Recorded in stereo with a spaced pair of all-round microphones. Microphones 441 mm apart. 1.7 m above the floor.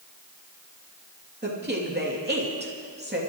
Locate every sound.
1.4 s a woman speaking: 20° right (ahead or behind), 3 m